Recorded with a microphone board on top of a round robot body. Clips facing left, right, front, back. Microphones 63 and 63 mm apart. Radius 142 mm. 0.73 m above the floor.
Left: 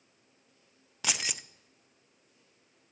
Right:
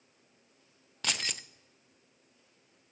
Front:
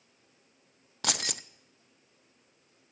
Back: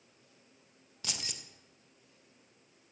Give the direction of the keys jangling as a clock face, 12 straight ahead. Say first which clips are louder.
Left 1 dB, front 10 dB; 12 o'clock.